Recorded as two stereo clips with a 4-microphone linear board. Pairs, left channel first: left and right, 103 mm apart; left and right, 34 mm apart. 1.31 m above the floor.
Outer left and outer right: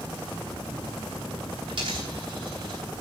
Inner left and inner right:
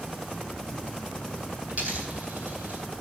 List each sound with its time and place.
1.7 s a dropped coin: 60° right (ahead or behind), 2.5 m